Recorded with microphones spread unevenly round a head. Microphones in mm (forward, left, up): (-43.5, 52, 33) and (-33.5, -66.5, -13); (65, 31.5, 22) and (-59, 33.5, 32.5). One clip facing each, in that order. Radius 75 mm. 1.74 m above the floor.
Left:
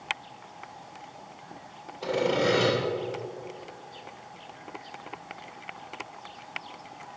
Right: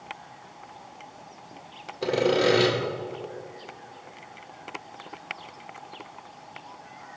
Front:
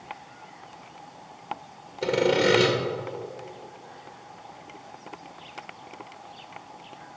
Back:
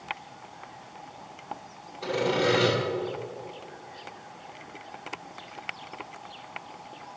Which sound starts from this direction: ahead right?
Sawing, at 2.0 s.